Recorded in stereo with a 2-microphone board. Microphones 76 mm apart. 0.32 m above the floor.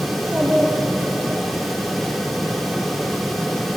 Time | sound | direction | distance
0.1 | a child speaking | centre (ahead or behind) | 9 m